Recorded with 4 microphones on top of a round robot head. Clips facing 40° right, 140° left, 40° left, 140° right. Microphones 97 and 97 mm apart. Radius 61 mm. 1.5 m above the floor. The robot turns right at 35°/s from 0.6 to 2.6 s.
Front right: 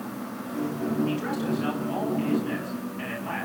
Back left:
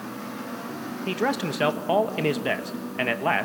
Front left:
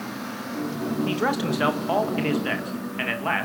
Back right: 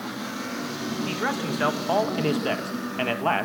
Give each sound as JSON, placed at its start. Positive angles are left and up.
{"t": 1.1, "sound": "a man speaking", "azimuth_deg": 105, "distance_m": 2.0}